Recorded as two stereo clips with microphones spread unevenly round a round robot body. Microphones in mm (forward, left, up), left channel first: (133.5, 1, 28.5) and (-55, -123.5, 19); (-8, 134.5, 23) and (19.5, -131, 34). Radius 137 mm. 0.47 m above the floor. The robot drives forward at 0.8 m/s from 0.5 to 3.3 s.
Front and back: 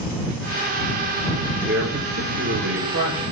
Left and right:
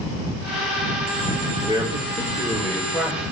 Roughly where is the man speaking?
Behind right.